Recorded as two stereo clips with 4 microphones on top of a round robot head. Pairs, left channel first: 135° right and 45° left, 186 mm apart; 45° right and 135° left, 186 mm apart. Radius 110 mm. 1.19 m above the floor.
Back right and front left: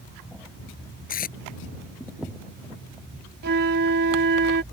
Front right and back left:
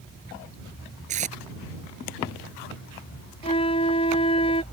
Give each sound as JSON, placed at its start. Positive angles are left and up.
{"t": 1.1, "sound": "tape being pulled", "azimuth_deg": -175}
{"t": 3.4, "sound": "a flute", "azimuth_deg": 15}